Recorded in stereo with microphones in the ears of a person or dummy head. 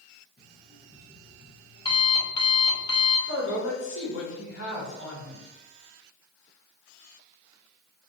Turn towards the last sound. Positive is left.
turn(degrees=75)  # may be behind; listen again after turning